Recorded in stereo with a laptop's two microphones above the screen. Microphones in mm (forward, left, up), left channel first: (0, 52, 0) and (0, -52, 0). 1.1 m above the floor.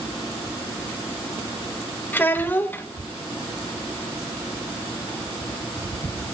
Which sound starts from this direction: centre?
A child speaking, at 2.1 s.